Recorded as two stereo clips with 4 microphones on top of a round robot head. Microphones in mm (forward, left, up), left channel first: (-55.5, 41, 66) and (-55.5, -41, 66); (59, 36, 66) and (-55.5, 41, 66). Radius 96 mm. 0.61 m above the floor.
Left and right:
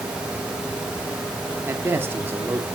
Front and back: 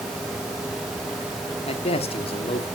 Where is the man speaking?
30° right, 1.3 m.